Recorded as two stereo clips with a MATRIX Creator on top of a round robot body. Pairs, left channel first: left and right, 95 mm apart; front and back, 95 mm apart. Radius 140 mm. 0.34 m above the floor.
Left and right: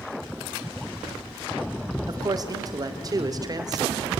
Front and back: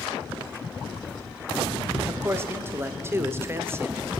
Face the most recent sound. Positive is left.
turn(degrees=-125)